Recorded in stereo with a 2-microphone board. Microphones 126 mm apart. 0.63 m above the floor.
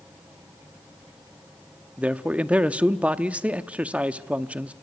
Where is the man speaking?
10° right (ahead or behind), 0.8 m.